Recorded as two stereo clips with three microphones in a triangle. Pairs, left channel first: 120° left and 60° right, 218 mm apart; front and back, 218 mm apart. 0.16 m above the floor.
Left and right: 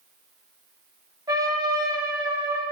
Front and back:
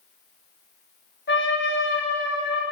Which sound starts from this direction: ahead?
A trumpet, at 1.3 s.